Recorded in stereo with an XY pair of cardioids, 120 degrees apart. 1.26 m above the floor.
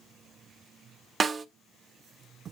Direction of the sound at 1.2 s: 35° right.